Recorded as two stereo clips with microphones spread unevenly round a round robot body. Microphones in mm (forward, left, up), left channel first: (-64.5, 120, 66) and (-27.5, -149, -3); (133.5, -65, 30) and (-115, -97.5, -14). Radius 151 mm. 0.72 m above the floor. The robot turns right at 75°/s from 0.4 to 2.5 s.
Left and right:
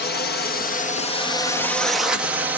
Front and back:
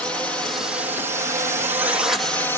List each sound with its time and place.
0.0 s a drone: 115° left; by 2.6 s 90° right